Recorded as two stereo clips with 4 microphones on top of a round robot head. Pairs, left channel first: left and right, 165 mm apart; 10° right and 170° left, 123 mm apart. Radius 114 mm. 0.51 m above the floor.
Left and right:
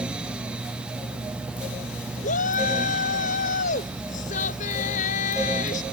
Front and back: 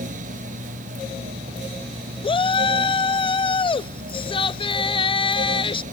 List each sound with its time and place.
2.2 s a shout: 40° left